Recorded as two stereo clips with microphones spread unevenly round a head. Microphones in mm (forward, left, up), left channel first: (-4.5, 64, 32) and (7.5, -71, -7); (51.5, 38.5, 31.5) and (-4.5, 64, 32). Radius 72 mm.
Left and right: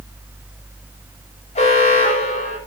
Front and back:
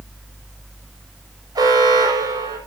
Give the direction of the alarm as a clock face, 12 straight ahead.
7 o'clock.